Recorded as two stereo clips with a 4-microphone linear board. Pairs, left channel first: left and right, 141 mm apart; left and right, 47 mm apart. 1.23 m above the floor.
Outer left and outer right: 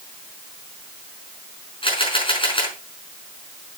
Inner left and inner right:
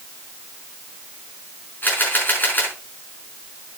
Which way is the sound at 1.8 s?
40° left (ahead or behind).